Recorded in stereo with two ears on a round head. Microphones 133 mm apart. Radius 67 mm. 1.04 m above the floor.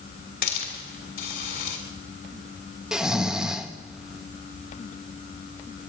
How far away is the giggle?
No giggle in this recording.